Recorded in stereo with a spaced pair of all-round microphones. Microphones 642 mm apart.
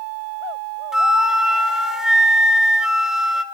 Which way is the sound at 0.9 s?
Centre (ahead or behind).